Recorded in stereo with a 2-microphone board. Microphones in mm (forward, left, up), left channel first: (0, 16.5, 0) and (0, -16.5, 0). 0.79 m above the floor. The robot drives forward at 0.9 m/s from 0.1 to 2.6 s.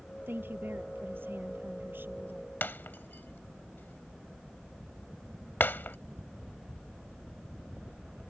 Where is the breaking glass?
75° left (ahead or behind).